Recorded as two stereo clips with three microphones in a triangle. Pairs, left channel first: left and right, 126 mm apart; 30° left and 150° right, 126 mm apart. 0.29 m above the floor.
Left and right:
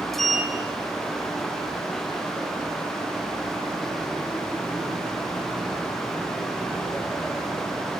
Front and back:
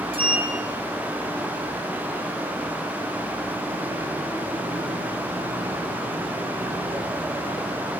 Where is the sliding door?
Straight behind, 1.3 m.